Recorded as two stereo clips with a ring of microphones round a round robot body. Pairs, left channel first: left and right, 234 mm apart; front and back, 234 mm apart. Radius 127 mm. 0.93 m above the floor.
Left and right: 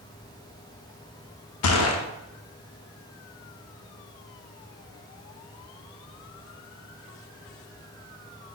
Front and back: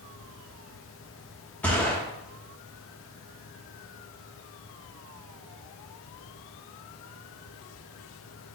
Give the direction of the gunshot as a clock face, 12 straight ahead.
9 o'clock.